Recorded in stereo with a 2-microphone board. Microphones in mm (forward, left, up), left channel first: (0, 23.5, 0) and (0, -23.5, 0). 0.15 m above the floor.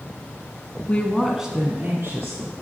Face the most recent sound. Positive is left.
turn(degrees=-60)  # may be behind; listen again after turning